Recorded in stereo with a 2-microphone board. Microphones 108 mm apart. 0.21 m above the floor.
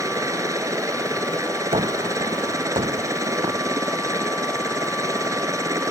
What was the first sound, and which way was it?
A helicopter, 30° right (ahead or behind).